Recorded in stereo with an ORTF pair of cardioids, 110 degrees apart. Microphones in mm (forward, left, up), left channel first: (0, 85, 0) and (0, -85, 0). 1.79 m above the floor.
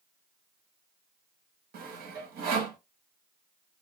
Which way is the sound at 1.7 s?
65° right.